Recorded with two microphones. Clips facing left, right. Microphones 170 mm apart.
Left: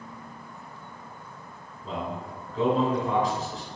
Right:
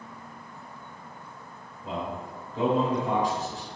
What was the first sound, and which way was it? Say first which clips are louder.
A man speaking: even; 15° right (ahead or behind).